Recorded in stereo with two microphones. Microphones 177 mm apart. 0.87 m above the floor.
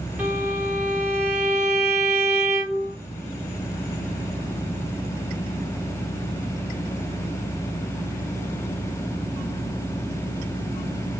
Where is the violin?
10° right (ahead or behind), 1.8 m.